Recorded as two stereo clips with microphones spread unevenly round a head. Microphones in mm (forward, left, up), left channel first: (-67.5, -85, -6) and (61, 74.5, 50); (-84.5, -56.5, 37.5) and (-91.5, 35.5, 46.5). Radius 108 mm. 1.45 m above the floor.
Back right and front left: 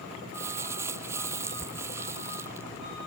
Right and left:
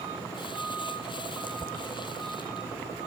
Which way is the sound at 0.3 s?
25° right.